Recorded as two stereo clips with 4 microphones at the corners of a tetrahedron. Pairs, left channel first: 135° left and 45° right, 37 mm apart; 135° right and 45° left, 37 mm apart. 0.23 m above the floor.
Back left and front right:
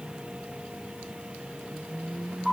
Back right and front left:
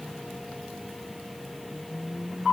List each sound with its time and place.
Only background noise.